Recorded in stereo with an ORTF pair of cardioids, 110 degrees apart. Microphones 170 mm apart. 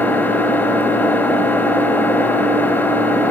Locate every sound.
0.0 s an engine running: 10° left, 3 m